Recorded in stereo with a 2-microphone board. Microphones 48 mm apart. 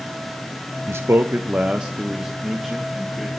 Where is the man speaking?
65° right (ahead or behind), 0.5 m; by 3.3 s centre (ahead or behind), 1.9 m.